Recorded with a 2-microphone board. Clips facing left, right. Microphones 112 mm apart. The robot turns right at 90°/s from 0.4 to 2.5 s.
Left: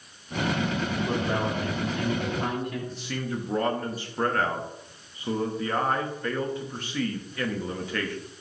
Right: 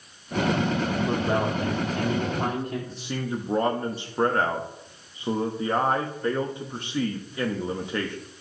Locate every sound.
1.1 s a man speaking: 170° right, 2.5 m; by 2.8 s 35° right, 2.5 m
2.9 s a man speaking: 25° right (ahead or behind), 1.0 m